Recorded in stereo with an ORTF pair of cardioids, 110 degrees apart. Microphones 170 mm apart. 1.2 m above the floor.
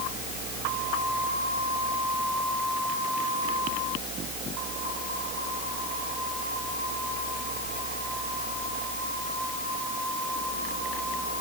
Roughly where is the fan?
Ahead right.